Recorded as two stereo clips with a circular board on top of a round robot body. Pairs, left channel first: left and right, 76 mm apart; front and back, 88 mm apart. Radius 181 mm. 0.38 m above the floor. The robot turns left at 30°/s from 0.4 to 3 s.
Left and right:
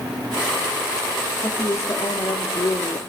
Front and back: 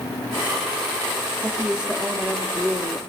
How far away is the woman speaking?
About 1.6 m.